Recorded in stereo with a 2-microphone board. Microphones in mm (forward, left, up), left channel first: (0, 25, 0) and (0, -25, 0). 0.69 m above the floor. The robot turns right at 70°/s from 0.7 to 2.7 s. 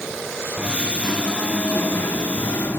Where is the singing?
25° right, 0.9 m; by 2.8 s 115° left, 0.9 m.